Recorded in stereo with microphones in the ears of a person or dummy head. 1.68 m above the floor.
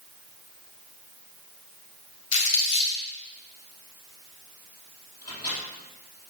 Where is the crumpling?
70° left (ahead or behind), 3 m.